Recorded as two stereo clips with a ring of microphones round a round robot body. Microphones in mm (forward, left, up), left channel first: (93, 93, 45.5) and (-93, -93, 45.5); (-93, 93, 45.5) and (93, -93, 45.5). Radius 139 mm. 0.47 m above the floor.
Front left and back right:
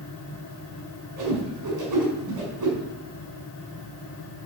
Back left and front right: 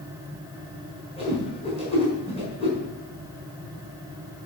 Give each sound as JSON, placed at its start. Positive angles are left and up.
{"t": 1.2, "sound": "a whoosh", "azimuth_deg": -155, "distance_m": 5.0}